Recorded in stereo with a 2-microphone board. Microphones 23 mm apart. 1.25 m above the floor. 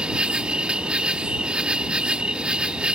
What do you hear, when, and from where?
0.0 s an insect: 55° right (ahead or behind)